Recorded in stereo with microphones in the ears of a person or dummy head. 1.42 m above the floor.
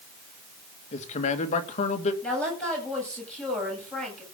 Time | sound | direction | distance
0.9 | a man speaking | 35° left (ahead or behind) | 2 m
2.2 | a woman speaking | centre (ahead or behind) | 8.5 m